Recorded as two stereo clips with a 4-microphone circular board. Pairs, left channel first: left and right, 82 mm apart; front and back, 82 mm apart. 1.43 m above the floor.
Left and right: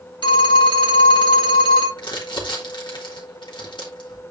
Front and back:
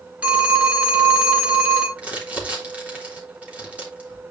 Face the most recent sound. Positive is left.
turn(degrees=110)